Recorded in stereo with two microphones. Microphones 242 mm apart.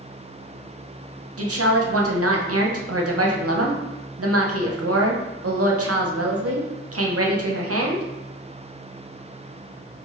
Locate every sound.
1.4 s a woman speaking: 75° right (ahead or behind), 0.7 m